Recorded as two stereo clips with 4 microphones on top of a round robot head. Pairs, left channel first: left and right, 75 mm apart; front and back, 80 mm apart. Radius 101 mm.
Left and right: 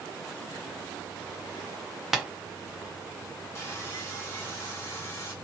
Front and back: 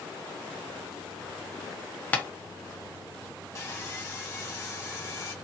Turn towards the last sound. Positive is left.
turn(degrees=45)